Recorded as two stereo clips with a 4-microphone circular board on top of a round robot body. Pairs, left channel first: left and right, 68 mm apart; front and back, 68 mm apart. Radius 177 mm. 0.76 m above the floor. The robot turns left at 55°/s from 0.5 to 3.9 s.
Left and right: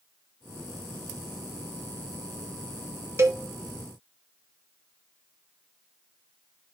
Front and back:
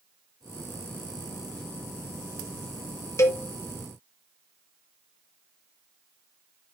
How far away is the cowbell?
About 1.2 m.